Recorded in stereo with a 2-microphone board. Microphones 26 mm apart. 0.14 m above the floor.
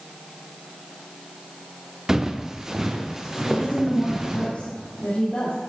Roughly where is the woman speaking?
Left.